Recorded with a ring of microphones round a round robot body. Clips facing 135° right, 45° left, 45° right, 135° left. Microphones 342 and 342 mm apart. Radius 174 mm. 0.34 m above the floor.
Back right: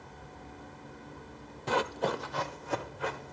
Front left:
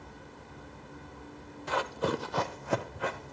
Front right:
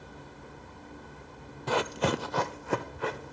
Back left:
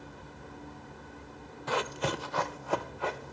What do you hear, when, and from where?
1.7 s running footsteps: 95° right, 0.6 m; by 3.3 s 25° left, 1.8 m